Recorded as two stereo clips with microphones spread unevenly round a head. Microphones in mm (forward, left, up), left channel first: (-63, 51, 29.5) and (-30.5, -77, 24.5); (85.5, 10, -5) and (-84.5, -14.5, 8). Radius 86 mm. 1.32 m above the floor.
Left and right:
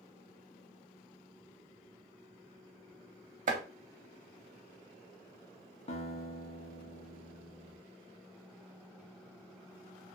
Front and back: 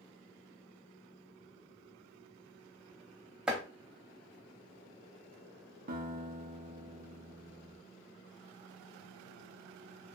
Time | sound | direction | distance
3.5 | chopping | 85° right | 0.7 m
5.9 | a guitar | 145° left | 0.7 m